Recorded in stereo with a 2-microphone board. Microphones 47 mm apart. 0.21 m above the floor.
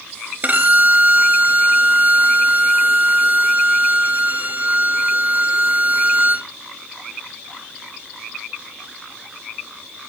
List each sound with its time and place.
0.4 s a violin: 35° right (ahead or behind), 0.7 m